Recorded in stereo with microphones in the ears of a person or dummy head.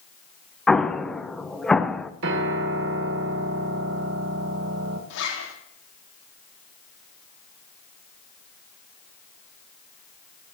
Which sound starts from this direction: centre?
An explosion, at 0.7 s.